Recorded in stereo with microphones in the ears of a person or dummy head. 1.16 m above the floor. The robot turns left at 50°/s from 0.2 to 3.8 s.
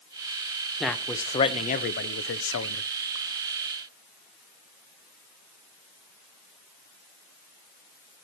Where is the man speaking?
Straight behind, 0.7 m; by 2.8 s 80° left, 0.7 m.